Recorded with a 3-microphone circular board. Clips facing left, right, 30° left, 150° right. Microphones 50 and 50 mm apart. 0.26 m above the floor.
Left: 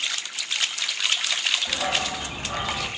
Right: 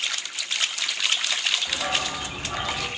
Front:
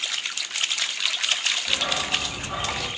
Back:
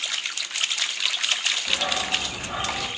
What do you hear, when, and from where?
1.7 s a dog barking: 150° left, 4 m; by 2.9 s 160° left, 3.5 m